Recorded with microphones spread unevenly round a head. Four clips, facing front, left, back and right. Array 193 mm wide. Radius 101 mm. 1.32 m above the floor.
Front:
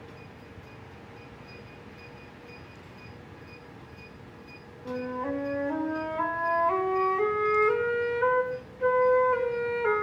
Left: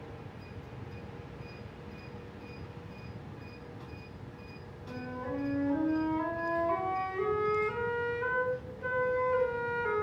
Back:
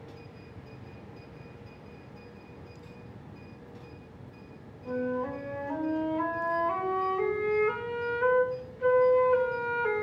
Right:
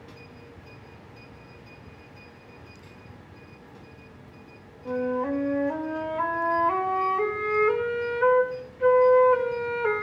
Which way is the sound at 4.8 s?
65° right.